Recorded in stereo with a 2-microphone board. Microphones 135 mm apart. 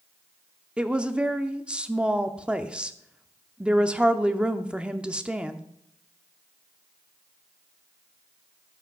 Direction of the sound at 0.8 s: 10° right (ahead or behind).